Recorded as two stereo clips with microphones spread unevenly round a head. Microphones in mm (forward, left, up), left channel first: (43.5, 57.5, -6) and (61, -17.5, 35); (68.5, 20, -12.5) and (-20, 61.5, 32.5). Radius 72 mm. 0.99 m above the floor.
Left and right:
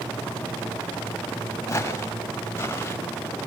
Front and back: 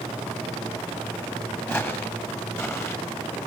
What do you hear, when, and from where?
1.7 s footsteps: 45° left, 7 m; by 3.0 s 40° left, 8.5 m